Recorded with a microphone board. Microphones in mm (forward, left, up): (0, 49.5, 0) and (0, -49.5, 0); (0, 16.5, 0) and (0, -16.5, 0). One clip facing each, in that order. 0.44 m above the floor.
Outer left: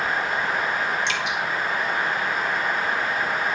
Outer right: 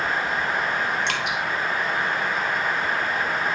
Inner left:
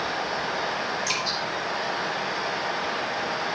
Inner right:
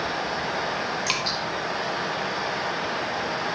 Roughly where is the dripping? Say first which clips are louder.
Even, inner right 1 dB; right.